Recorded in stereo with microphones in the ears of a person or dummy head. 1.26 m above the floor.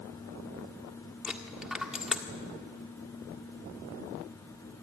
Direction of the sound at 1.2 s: 5° left (ahead or behind).